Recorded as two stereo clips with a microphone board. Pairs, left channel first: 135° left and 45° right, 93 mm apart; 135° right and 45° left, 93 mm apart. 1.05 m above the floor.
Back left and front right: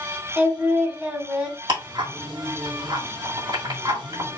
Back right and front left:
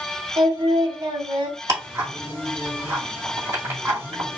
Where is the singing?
25° left, 1.5 m.